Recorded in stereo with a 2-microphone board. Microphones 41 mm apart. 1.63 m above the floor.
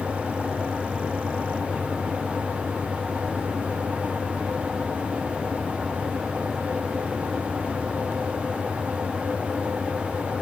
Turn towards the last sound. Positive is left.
No sound to turn to.